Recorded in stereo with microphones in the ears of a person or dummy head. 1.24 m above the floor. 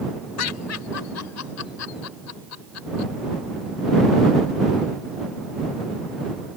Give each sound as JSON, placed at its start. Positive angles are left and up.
{"t": 0.4, "sound": "laughter", "side_deg": 85}